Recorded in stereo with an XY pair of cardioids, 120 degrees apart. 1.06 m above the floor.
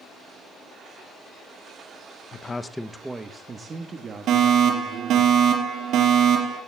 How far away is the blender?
No blender in this recording.